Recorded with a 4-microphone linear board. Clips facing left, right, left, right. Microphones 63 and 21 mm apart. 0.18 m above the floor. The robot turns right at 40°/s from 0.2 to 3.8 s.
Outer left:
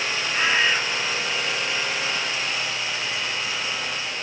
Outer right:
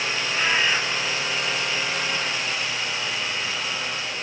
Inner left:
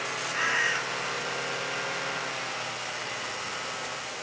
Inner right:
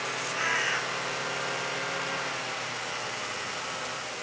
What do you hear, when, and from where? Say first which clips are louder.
0.3 s a bird: outer left 1 dB, inner left 2 dB; 5° left (ahead or behind), 2.0 m; by 0.8 s 5° right (ahead or behind), 2.0 m